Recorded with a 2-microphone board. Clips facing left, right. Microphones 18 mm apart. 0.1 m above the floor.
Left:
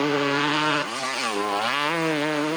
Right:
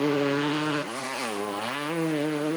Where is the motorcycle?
35° left (ahead or behind); by 2.6 s 45° left (ahead or behind).